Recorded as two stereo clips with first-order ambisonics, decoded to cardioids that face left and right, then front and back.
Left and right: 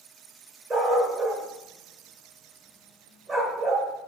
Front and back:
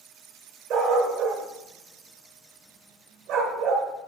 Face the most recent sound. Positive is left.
turn(degrees=-155)